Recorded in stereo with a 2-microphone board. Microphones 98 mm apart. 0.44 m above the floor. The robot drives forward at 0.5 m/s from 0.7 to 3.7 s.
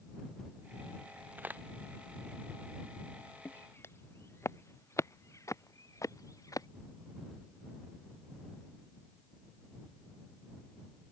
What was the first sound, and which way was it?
A crack, 15° right (ahead or behind).